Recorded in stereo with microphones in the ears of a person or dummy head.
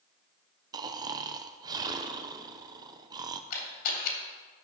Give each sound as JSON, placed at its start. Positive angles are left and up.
{"t": 0.7, "sound": "snoring", "side_deg": -20, "distance_m": 0.5}
{"t": 3.5, "sound": "a camera shutter", "side_deg": 55, "distance_m": 3.0}